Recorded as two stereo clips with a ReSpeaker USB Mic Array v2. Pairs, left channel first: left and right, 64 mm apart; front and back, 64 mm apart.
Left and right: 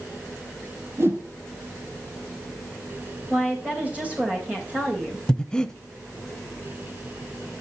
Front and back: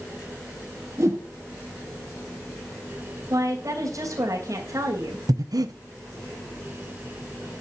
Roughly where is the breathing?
Behind.